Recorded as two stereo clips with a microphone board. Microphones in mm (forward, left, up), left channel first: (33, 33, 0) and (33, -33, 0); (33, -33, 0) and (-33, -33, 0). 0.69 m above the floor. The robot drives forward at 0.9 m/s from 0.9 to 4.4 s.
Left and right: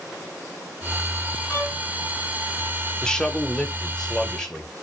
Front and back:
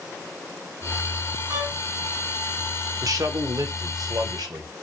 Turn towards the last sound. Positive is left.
turn(degrees=175)